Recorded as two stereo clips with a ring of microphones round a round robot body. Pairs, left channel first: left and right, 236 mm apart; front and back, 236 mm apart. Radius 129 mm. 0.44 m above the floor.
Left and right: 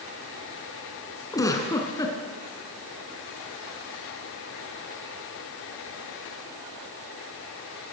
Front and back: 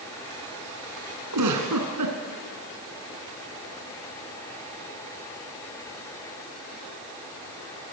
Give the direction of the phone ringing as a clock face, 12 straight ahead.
No phone ringing in this recording.